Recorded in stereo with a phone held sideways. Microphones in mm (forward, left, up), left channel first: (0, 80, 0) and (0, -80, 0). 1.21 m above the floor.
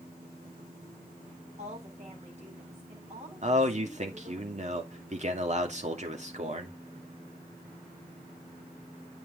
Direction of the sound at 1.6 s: 45° right (ahead or behind).